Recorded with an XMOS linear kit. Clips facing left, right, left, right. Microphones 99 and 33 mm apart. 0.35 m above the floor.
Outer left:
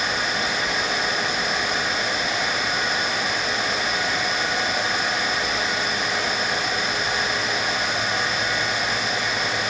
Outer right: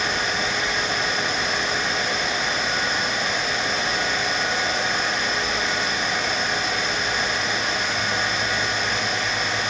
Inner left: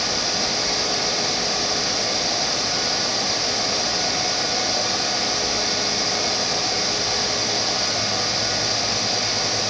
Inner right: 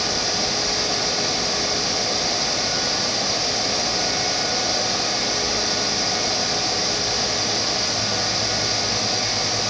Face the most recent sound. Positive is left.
No sound to turn to.